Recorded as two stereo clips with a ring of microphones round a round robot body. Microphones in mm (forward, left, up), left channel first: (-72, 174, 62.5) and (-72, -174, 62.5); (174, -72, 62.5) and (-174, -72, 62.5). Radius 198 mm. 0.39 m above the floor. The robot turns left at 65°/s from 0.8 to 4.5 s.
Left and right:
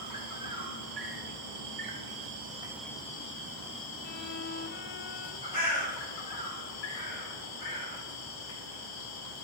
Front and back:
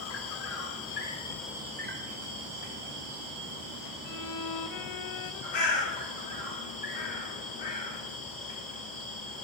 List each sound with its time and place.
0.0 s an insect: 50° right, 1.9 m; by 9.4 s 70° left, 1.9 m
4.0 s a violin: 60° left, 0.6 m; by 5.4 s 30° left, 0.6 m
5.5 s a bird: 15° left, 5.5 m